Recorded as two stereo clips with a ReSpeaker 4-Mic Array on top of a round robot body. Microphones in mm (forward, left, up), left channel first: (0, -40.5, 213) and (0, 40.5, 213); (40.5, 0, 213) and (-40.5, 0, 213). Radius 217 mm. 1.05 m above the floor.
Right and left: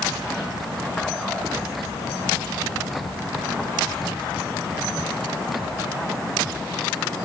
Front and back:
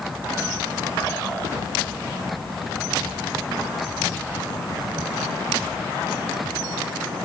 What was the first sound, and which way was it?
Only background noise.